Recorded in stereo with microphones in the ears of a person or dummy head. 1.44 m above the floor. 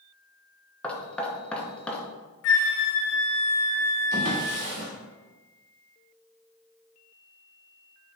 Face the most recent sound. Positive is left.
turn(degrees=-70)  # may be behind; listen again after turning